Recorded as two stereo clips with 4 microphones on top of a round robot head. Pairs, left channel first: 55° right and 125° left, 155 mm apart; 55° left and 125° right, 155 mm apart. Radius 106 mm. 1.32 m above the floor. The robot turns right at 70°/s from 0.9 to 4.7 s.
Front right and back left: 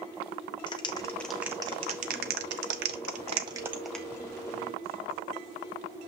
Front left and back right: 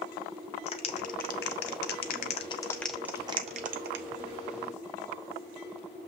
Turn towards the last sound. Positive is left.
turn(degrees=-90)